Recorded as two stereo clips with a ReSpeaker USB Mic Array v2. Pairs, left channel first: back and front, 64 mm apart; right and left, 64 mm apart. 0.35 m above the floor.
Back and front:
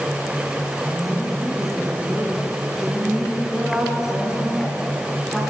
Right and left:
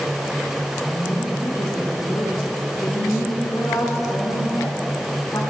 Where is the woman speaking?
85° right, 4 m.